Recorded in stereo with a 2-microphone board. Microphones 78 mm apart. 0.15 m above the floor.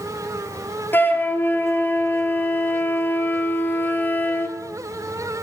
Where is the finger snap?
No finger snap in this recording.